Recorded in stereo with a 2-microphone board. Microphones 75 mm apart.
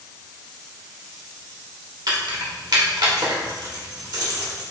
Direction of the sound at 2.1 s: 70° right (ahead or behind).